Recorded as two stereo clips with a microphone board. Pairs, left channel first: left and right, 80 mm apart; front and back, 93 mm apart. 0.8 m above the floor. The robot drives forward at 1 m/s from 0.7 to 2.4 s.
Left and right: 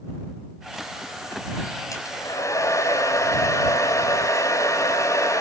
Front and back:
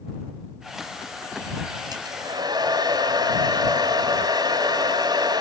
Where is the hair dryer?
135° left, 6 m; by 5.4 s 140° left, 6 m.